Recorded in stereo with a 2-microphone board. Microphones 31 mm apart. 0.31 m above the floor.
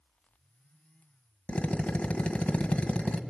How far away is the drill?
About 1.2 m.